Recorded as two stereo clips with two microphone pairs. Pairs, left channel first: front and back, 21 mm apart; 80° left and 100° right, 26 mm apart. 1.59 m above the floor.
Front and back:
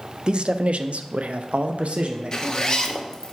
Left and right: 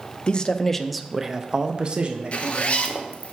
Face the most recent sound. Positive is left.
turn(degrees=55)